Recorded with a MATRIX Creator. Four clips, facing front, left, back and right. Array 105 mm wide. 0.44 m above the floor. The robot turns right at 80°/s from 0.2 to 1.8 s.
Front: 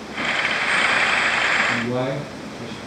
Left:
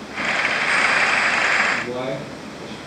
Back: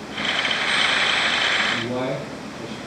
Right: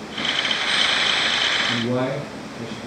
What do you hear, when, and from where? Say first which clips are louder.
1.7 s a man speaking: right 2 dB, front 2 dB; 65° right, 5 m; by 2.9 s 55° right, 5 m